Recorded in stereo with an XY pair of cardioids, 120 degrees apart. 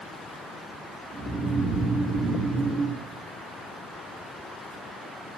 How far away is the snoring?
About 3 m.